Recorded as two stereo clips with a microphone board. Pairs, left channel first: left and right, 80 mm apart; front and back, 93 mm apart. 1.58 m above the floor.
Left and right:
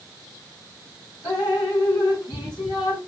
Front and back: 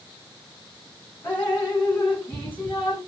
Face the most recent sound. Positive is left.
turn(degrees=70)